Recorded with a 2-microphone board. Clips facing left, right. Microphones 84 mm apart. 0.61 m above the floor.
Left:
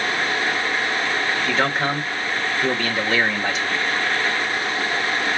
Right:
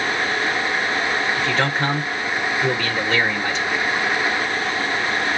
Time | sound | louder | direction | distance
1.4 | a man speaking | even | 5° left (ahead or behind) | 2.5 m